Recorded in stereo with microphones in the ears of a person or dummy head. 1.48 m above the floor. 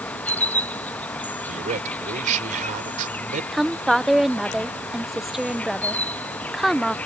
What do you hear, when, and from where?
0.0 s an insect: 10° left (ahead or behind)
1.5 s a man speaking: 45° right (ahead or behind)
3.5 s a woman speaking: centre (ahead or behind)